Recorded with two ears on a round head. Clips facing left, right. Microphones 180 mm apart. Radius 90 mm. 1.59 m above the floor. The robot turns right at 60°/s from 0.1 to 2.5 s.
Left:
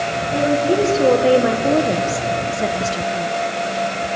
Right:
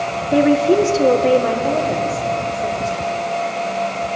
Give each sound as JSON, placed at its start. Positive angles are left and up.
{"t": 0.3, "sound": "a woman speaking", "azimuth_deg": -50, "distance_m": 1.4}